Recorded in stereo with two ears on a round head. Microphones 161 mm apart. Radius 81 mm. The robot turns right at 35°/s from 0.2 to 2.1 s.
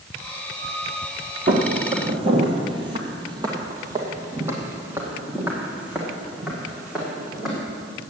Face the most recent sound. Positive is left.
turn(degrees=0)  # may be behind; listen again after turning